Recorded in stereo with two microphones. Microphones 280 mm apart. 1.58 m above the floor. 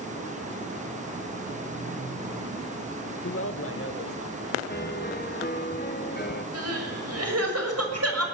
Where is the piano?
35° left (ahead or behind), 1.1 m.